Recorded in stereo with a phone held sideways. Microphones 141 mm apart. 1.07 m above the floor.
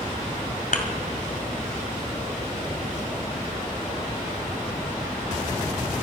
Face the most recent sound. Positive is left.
turn(degrees=70)  # may be behind; listen again after turning